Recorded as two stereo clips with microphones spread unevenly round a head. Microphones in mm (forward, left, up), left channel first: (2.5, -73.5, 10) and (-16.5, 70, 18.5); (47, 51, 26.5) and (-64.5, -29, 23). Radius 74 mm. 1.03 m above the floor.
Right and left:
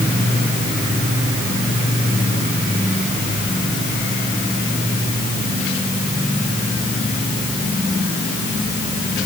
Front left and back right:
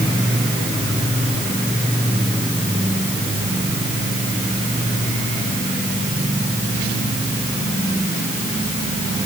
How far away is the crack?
No crack in this recording.